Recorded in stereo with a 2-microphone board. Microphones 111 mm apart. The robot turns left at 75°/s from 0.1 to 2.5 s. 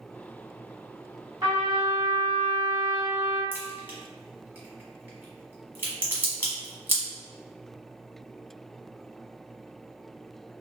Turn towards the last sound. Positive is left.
turn(degrees=-20)  # may be behind; listen again after turning